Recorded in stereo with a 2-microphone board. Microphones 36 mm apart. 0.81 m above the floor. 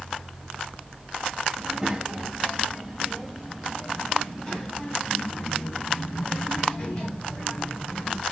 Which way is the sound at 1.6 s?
15° right (ahead or behind).